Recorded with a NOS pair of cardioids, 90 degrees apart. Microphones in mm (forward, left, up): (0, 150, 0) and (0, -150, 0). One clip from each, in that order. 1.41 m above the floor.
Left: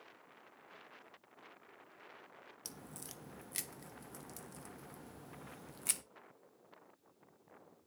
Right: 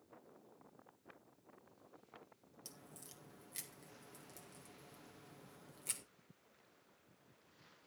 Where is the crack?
45° left, 1.3 m.